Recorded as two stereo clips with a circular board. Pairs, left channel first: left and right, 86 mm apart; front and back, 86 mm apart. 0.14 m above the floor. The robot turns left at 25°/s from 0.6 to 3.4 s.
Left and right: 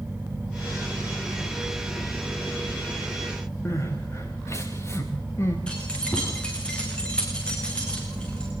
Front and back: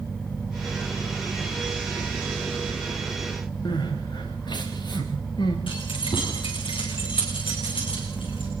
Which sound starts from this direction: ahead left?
Crying, at 3.6 s.